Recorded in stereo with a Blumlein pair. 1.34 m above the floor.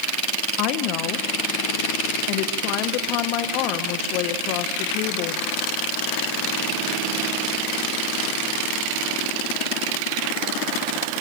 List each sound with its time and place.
0.6 s a woman speaking: 40° left, 1.4 m